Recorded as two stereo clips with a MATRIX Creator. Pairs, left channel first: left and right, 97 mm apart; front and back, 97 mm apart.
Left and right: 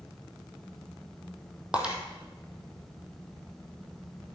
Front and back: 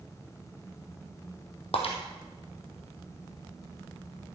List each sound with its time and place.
1.7 s breaking glass: 15° right, 2 m